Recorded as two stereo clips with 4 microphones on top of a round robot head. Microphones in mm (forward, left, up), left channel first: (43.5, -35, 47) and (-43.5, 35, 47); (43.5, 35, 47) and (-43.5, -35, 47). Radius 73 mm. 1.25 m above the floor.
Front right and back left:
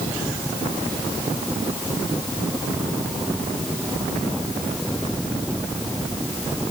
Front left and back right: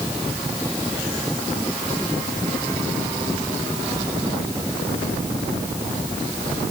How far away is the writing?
I don't hear writing.